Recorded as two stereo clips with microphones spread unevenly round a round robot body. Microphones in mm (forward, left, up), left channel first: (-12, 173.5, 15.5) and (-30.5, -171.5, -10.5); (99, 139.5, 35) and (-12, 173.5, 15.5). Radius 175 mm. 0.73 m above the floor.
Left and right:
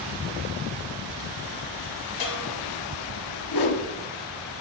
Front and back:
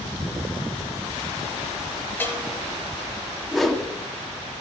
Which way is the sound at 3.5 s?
80° left.